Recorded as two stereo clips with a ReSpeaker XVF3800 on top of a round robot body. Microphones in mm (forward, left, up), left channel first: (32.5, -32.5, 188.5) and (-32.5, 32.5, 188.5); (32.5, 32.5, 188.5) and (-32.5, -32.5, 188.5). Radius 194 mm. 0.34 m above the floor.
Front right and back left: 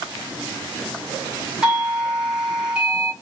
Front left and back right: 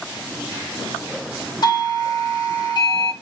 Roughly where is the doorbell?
Ahead left.